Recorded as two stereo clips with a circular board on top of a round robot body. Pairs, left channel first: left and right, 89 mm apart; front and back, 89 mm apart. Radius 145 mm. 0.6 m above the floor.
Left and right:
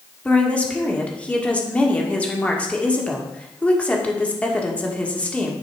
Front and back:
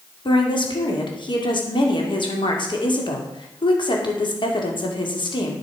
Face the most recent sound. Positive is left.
turn(degrees=15)